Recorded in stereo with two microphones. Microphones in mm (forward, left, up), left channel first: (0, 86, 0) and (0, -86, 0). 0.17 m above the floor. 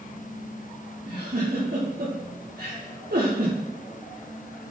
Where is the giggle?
75° right (ahead or behind), 7 m.